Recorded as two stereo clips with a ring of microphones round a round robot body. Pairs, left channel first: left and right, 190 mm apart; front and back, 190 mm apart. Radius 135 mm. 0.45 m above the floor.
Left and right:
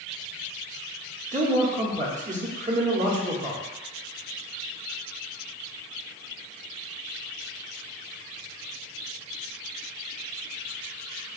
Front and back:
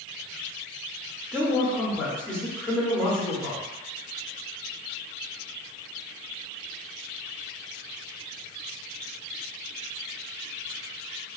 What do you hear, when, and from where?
1.3 s a man speaking: 85° right, 0.8 m